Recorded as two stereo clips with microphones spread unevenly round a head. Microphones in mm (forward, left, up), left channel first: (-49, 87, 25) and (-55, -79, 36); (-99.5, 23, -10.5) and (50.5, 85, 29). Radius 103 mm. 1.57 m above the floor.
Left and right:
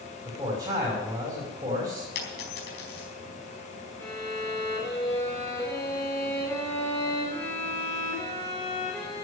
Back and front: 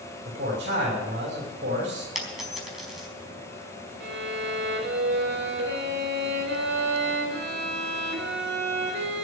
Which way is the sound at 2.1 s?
105° left.